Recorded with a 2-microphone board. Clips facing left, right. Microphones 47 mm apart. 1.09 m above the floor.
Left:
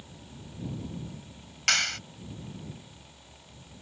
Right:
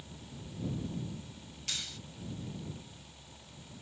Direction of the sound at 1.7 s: 80° left.